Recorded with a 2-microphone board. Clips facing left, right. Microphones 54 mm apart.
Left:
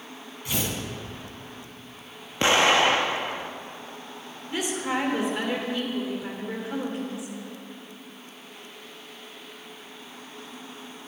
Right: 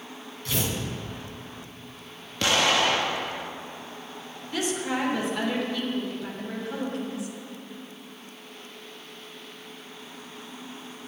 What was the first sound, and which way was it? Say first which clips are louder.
Tearing paper: even; 15° left (ahead or behind).